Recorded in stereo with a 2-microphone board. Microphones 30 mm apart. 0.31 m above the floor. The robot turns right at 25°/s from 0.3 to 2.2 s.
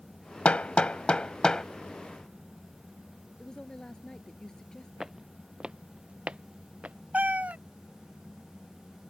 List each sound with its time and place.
0.5 s hammering: 45° left (ahead or behind); by 1.6 s 25° left (ahead or behind)
3.4 s a woman speaking: 25° left (ahead or behind)
5.0 s footsteps: 15° right (ahead or behind); by 7.0 s 45° right (ahead or behind)
7.1 s a cat meowing: 55° right (ahead or behind)